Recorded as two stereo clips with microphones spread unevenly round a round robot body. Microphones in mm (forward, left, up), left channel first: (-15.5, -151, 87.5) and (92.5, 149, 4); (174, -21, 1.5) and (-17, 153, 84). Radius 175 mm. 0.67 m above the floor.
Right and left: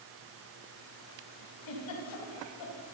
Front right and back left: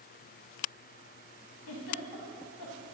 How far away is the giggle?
About 5.5 m.